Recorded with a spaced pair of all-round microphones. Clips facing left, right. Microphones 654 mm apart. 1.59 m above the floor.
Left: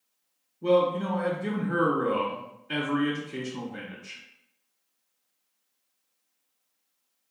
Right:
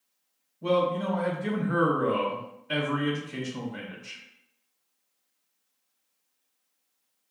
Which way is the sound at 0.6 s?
15° right (ahead or behind).